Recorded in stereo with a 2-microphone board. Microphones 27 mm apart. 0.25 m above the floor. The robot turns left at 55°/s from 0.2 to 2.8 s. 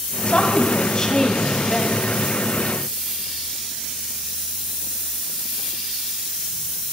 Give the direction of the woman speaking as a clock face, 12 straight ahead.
9 o'clock.